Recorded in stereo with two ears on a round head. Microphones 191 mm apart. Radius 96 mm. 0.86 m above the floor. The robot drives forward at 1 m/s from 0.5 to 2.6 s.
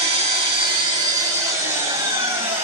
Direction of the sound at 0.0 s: 30° right (ahead or behind).